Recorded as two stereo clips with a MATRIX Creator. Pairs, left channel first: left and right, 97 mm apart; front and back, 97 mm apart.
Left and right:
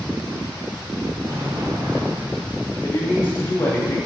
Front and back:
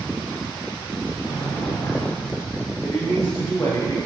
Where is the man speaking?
50° left, 1.6 m.